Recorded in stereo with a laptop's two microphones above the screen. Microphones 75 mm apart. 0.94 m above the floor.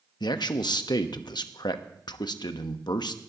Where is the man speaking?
70° left (ahead or behind), 1.0 m.